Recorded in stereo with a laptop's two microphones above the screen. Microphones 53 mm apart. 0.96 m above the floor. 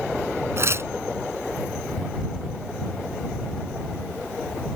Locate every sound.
0.6 s tearing paper: 50° right (ahead or behind)